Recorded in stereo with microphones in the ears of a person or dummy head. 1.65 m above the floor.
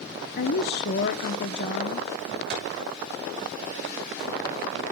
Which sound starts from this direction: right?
A clap, at 2.5 s.